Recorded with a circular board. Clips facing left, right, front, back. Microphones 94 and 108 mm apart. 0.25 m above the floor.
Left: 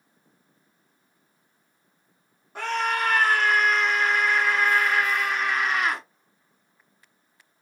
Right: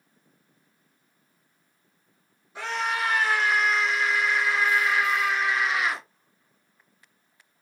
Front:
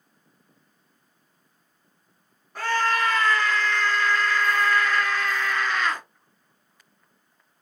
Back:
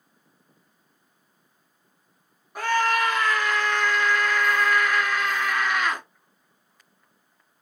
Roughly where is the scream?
Left.